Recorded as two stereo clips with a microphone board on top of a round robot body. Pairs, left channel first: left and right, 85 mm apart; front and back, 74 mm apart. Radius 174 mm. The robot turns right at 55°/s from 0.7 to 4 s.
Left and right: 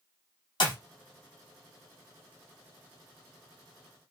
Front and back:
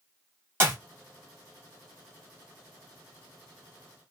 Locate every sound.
0.6 s a clap: 120° left, 1.8 m; by 0.8 s 125° left, 1.8 m